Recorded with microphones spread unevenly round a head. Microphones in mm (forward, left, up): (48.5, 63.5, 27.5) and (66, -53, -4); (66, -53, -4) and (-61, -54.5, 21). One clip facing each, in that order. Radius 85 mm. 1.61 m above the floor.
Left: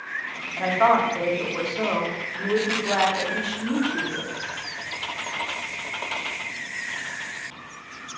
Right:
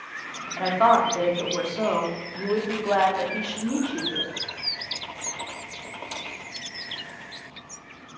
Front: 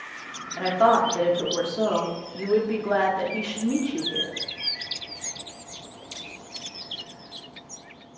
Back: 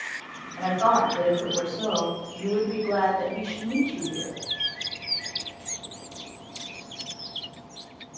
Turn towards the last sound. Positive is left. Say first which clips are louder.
# even, front 2 dB
turn(degrees=5)